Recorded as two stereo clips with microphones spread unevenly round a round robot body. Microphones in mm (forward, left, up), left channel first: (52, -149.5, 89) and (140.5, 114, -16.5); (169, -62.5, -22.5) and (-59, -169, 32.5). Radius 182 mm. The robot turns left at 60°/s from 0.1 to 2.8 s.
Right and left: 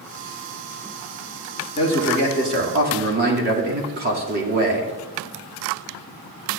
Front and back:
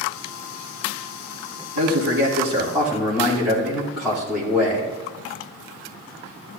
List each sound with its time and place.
1.8 s a man speaking: 170° left, 1.8 m; by 4.9 s 110° left, 1.8 m